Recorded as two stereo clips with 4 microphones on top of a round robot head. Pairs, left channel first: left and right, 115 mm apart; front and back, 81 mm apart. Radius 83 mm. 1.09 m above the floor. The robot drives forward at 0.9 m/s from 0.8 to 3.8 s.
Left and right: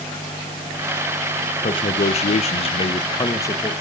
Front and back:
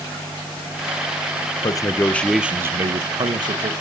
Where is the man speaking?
40° left, 0.9 m; by 3.7 s 160° left, 1.4 m.